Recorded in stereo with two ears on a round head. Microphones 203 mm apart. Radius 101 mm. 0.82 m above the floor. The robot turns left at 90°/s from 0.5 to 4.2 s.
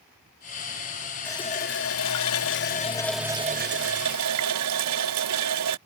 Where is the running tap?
170° left; by 5.8 s 95° right.